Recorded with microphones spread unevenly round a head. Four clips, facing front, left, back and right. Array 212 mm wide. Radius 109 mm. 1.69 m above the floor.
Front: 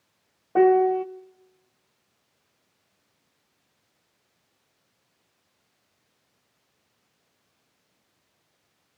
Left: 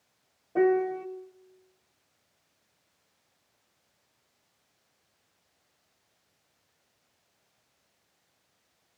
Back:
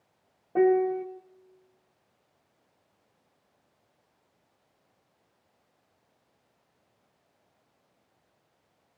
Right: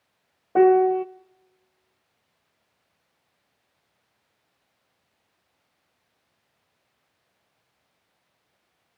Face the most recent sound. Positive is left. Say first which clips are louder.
# right 8 dB, front 5 dB
turn(degrees=-50)